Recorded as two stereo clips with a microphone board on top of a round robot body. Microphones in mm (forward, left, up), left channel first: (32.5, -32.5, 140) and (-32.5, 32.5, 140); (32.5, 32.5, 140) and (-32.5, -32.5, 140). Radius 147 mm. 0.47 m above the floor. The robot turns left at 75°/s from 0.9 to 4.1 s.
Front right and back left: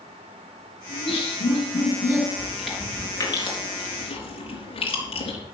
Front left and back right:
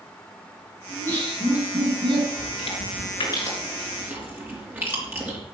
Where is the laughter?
10° right, 8.5 m; by 2.3 s 115° right, 8.5 m.